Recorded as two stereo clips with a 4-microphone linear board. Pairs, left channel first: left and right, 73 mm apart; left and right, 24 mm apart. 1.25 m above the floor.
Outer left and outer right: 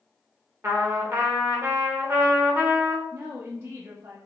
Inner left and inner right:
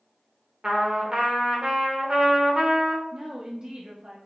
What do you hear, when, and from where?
0.6 s a trumpet: 40° right (ahead or behind), 1.0 m
3.1 s a woman speaking: 45° right (ahead or behind), 0.6 m